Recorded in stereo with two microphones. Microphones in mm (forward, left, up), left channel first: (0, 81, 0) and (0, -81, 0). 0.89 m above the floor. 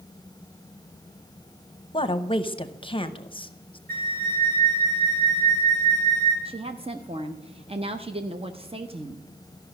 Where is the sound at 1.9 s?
30° left (ahead or behind), 0.7 m.